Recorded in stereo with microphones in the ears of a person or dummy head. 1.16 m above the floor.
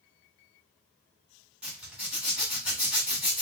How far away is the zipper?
About 1.1 m.